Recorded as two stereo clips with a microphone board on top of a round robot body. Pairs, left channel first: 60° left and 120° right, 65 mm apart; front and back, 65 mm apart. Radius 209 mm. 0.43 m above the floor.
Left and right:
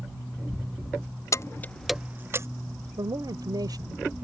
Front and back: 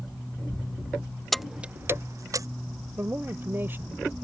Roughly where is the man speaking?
Behind right.